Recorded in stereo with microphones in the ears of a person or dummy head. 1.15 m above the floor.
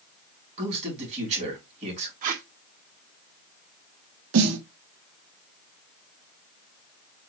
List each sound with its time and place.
0.6 s a man speaking: 35° right (ahead or behind), 3 m
2.2 s tape being pulled: 50° right (ahead or behind), 0.7 m
4.3 s a snare drum: 85° right, 1.1 m